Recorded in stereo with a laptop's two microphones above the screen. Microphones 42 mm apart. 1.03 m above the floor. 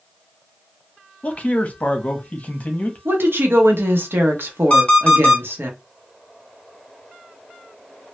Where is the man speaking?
40° left (ahead or behind), 0.7 m.